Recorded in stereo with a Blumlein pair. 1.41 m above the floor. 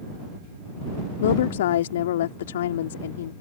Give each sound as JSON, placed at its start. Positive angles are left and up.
{"t": 1.2, "sound": "a woman speaking", "azimuth_deg": 60}